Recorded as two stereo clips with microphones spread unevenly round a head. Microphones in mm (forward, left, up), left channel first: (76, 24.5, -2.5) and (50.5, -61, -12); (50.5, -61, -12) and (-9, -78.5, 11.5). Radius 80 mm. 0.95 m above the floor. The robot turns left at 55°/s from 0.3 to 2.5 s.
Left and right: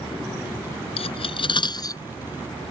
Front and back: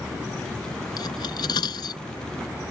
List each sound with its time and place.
1.0 s cutlery clinking: 80° left; by 2.0 s 20° left